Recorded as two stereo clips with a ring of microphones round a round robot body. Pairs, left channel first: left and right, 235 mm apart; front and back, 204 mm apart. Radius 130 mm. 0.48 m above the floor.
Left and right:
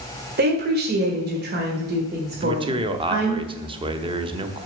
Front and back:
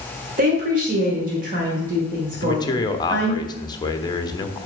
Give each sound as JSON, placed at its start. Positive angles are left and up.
{"t": 0.4, "sound": "a woman speaking", "azimuth_deg": -135, "distance_m": 1.6}
{"t": 2.3, "sound": "a man speaking", "azimuth_deg": -45, "distance_m": 0.8}